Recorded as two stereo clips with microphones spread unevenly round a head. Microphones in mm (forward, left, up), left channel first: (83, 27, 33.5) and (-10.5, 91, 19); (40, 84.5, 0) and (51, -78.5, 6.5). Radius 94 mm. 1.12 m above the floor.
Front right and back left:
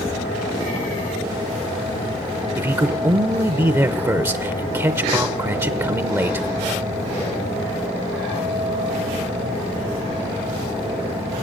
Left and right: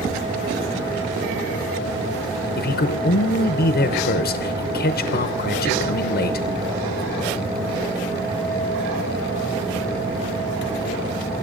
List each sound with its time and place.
2.6 s a man speaking: 85° left, 0.8 m